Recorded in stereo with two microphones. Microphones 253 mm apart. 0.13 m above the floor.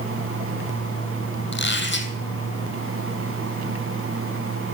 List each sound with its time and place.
1.5 s a squeak: 45° left (ahead or behind), 2.5 m